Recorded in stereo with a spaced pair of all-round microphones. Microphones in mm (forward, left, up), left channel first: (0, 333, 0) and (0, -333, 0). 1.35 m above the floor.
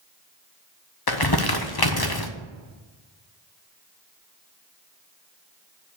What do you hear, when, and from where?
1.1 s crumpling: 35° left (ahead or behind), 0.7 m